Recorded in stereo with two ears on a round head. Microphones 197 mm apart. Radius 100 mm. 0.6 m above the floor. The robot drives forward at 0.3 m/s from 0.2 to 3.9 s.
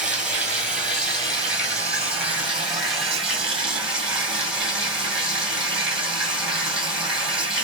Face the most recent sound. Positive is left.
turn(degrees=-5)  # may be behind; listen again after turning